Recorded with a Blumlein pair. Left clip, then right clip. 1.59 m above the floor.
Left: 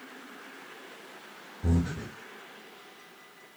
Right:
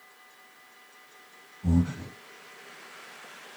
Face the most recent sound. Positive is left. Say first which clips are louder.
# right 3 dB
turn(degrees=55)